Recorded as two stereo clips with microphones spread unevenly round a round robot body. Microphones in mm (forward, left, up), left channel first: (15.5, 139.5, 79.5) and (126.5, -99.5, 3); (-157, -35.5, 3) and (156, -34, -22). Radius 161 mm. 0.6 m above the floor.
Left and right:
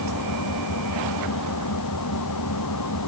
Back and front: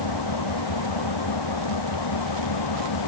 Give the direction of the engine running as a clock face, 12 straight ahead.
7 o'clock.